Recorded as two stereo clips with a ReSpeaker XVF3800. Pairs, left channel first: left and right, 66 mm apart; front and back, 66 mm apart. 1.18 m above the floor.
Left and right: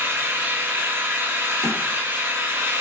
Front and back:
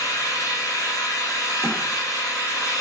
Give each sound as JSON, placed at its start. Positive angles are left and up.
{"t": 0.0, "sound": "an engine running", "azimuth_deg": -30, "distance_m": 0.8}
{"t": 1.6, "sound": "a thud", "azimuth_deg": 25, "distance_m": 1.6}